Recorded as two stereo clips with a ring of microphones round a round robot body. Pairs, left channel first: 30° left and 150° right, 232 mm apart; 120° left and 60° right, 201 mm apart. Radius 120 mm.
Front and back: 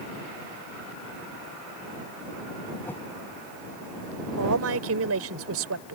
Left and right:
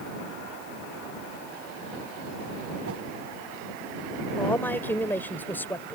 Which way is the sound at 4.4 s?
160° right.